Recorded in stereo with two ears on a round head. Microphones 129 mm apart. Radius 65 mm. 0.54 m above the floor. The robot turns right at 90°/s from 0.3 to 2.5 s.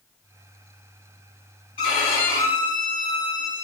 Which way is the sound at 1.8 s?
40° left.